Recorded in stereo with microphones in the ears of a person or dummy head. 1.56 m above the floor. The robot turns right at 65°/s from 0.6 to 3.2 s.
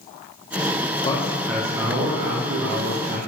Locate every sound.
1.0 s a man speaking: 150° left, 1.0 m; by 3.2 s 70° right, 1.0 m